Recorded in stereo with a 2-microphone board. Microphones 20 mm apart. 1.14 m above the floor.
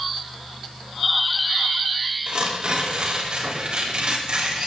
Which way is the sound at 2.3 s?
55° right (ahead or behind).